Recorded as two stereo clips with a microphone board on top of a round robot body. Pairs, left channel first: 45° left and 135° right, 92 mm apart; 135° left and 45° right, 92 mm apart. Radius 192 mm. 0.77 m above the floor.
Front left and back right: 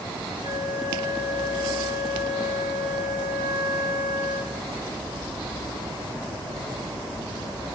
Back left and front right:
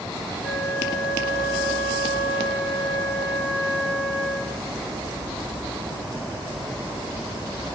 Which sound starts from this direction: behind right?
A flute, at 0.4 s.